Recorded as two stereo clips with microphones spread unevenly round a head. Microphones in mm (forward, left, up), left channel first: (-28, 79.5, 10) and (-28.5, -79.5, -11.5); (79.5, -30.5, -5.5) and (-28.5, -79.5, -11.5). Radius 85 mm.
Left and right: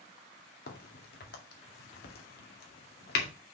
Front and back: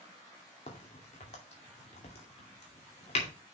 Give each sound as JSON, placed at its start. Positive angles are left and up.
{"t": 0.7, "sound": "a crack", "azimuth_deg": 70, "distance_m": 2.0}